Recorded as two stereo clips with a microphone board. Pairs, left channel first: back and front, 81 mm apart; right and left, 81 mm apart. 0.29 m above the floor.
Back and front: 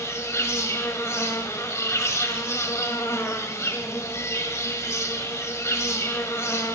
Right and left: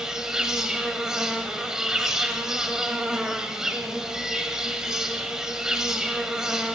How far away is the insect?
About 0.8 m.